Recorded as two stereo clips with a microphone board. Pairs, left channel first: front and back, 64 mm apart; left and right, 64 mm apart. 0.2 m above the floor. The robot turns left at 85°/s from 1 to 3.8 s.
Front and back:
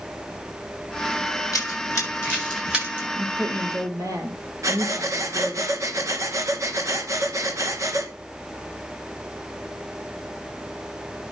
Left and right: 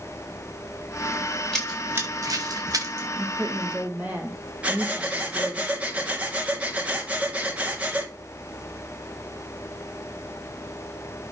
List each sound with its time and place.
1.5 s running footsteps: 5° left, 6.5 m; by 3.0 s 130° right, 8.5 m
3.1 s a woman speaking: 100° right, 6.5 m; by 5.6 s 155° right, 6.5 m
4.6 s breathing: 155° right, 2 m